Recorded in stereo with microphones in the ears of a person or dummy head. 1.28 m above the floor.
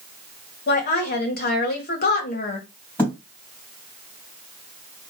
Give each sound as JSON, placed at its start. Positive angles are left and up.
{"t": 0.7, "sound": "a woman speaking", "side_deg": 50, "distance_m": 1.4}
{"t": 3.0, "sound": "a thud", "side_deg": 10, "distance_m": 2.5}